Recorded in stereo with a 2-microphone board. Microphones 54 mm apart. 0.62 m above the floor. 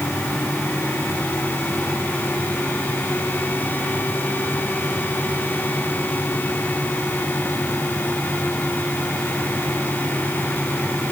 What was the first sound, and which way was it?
Only background noise.